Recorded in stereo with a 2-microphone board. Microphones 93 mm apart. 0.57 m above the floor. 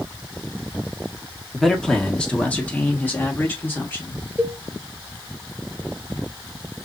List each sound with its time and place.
1.5 s a man speaking: centre (ahead or behind), 0.9 m; by 4.2 s 25° left (ahead or behind), 2.0 m
4.4 s a cowbell: 15° right (ahead or behind), 0.9 m